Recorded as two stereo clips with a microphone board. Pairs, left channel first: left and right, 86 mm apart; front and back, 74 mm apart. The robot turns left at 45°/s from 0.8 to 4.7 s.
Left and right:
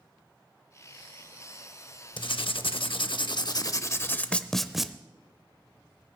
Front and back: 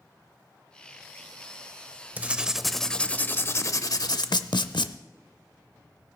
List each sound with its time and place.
2.2 s writing: 115° left, 0.5 m; by 4.9 s straight ahead, 0.5 m